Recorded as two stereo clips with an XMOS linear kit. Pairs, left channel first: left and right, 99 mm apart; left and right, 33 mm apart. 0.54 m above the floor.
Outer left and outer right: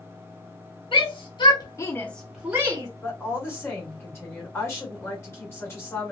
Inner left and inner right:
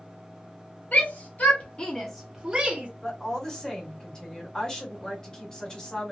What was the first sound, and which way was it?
A shout, 60° left (ahead or behind).